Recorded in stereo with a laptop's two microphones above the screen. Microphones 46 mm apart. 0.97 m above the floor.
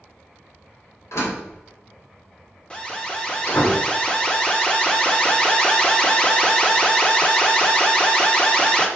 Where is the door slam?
85° left, 3 m.